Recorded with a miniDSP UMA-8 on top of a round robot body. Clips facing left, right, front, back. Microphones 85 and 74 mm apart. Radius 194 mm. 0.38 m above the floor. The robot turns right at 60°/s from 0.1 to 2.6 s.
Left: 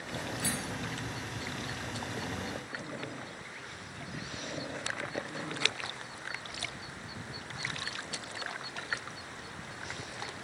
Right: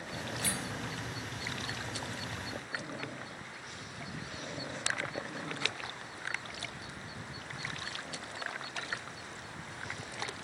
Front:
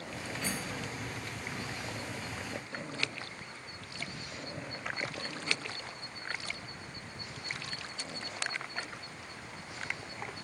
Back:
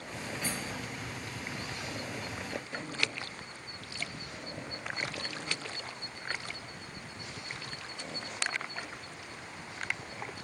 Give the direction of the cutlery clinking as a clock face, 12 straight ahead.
3 o'clock.